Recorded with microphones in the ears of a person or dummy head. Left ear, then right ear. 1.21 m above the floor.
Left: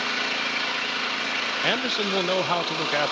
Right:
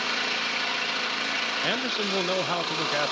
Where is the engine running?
Centre (ahead or behind), 1.8 m.